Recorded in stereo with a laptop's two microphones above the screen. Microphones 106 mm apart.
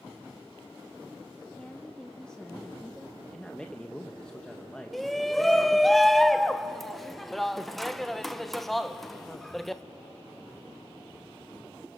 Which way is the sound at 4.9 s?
Centre (ahead or behind).